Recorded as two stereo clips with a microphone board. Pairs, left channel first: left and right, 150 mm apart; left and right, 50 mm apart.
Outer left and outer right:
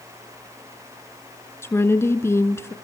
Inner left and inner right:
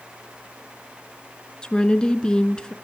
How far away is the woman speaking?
About 1.2 m.